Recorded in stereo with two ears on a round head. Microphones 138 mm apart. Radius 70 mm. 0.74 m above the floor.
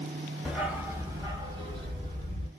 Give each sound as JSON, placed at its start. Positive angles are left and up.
{"t": 0.5, "sound": "a dog barking", "side_deg": -5, "distance_m": 1.1}